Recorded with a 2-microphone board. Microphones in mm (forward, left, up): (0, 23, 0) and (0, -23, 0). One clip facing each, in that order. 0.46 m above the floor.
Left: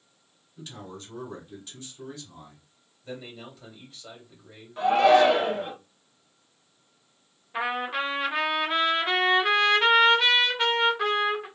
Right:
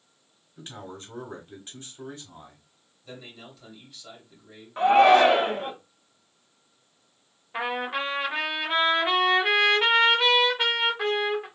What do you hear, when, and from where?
0.6 s a man speaking: 30° right (ahead or behind), 1.1 m
3.0 s a man speaking: 30° left (ahead or behind), 1.8 m
4.8 s a shout: 30° right (ahead or behind), 0.9 m
7.5 s a trumpet: 10° right (ahead or behind), 1.1 m